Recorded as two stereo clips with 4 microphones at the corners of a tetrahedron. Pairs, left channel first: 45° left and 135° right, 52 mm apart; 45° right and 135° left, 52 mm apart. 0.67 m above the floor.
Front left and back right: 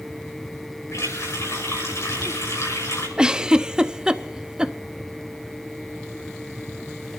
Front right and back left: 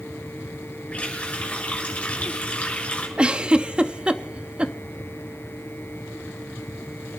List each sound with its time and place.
0.9 s a running tap: 25° left, 6 m
3.2 s a giggle: 170° left, 0.6 m